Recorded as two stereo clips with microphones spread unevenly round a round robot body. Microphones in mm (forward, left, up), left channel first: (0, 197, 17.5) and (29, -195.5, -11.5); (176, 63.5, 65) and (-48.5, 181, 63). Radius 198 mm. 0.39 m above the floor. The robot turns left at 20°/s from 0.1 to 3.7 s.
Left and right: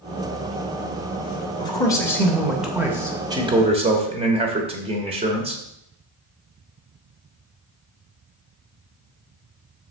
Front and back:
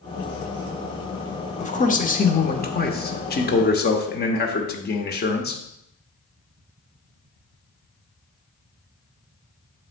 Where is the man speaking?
15° left, 1.1 m; by 5.6 s 25° right, 1.1 m.